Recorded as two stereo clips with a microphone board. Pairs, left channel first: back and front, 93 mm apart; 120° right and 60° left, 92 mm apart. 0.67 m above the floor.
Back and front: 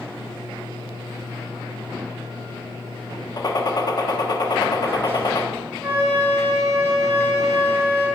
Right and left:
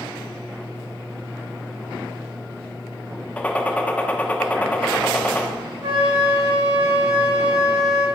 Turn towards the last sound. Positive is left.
turn(degrees=75)